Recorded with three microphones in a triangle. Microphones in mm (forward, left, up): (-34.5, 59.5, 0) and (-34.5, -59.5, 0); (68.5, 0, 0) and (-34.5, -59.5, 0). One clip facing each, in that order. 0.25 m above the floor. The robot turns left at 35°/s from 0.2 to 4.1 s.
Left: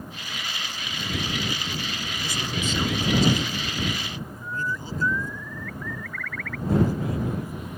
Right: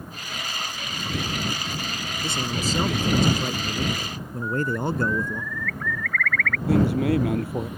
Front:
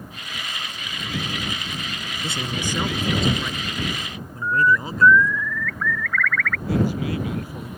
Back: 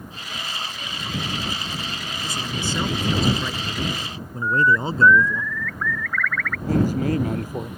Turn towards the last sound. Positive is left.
turn(degrees=-105)